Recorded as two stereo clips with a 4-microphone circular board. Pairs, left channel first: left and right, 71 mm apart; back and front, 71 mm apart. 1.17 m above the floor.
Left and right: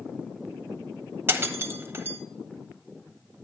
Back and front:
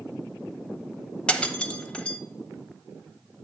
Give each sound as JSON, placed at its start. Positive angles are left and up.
{"t": 1.3, "sound": "breaking glass", "azimuth_deg": -115, "distance_m": 1.1}